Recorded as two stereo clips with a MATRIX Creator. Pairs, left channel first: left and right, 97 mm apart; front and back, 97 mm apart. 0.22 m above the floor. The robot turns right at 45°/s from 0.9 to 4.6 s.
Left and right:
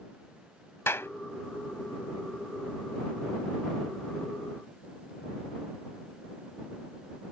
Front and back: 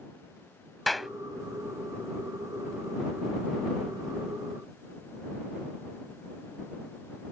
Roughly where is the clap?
Left.